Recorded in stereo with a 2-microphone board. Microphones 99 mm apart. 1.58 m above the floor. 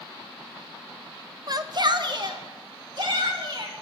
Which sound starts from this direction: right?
A shout, at 1.5 s.